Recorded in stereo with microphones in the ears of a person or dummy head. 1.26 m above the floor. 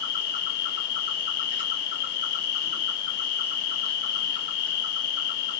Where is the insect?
65° left (ahead or behind), 1.6 m.